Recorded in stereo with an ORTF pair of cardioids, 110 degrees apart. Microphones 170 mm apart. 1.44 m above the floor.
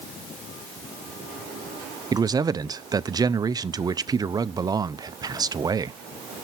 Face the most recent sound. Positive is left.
turn(degrees=-25)